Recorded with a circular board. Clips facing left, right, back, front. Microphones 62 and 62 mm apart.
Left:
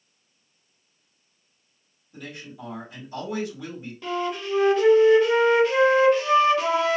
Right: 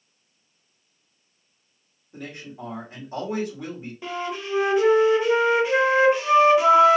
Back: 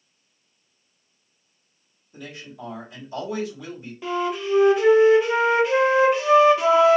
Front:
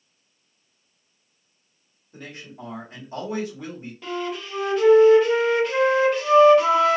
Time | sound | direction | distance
2.1 | a man speaking | 50° right | 1.6 m
4.0 | a flute | 120° right | 1.1 m